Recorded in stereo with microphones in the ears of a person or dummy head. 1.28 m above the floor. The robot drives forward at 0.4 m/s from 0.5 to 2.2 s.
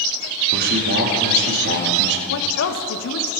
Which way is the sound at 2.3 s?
65° left (ahead or behind).